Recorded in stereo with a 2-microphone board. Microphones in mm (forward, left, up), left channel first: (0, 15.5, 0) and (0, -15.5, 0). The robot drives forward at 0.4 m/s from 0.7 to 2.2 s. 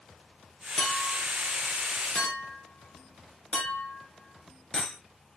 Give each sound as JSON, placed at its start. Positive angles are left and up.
{"t": 0.8, "sound": "a clink", "side_deg": 25, "distance_m": 3.5}